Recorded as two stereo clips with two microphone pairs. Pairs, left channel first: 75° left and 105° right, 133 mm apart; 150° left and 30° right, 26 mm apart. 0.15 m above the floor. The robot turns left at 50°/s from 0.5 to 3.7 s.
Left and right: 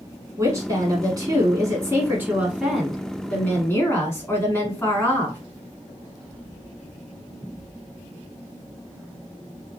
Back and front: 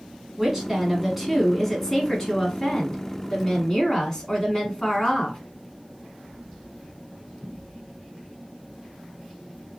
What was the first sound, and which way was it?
A woman speaking, 75° right.